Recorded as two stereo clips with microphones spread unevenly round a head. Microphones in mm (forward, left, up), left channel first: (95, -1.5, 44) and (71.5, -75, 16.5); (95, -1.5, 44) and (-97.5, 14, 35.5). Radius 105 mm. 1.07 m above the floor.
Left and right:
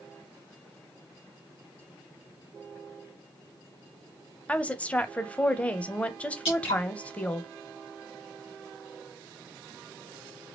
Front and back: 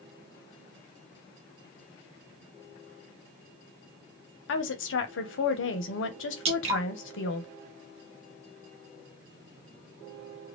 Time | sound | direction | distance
4.5 | a woman speaking | 10° right | 0.8 m
6.5 | dripping | 115° left | 1.3 m